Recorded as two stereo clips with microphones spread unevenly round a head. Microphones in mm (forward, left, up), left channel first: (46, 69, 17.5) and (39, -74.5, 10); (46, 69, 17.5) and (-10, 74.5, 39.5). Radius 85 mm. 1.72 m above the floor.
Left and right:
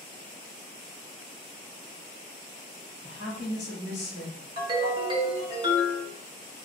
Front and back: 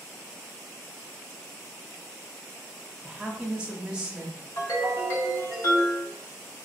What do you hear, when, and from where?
3.0 s a woman speaking: 100° left, 0.9 m
4.6 s a ringtone: 80° right, 0.6 m